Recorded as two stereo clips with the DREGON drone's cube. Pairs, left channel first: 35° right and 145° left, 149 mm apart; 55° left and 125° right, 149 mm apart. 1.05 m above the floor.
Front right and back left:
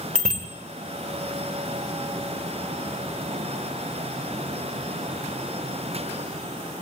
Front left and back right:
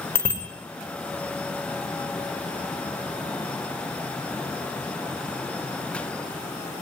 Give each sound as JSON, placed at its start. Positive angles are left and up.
{"t": 0.1, "sound": "a bicycle bell", "azimuth_deg": 130, "distance_m": 2.5}